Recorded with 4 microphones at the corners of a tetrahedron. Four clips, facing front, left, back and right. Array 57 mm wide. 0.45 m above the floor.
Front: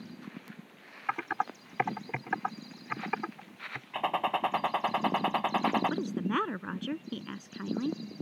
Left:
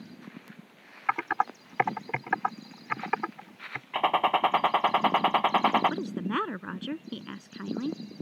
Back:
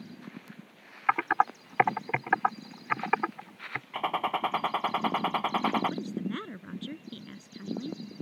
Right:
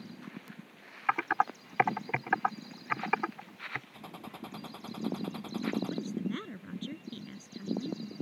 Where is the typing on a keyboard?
170° left.